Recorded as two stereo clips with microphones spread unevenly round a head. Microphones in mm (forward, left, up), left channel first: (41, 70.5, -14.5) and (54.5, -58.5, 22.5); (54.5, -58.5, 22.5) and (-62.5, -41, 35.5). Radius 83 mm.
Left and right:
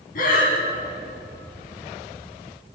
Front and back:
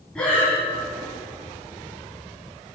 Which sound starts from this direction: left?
Breathing, at 0.1 s.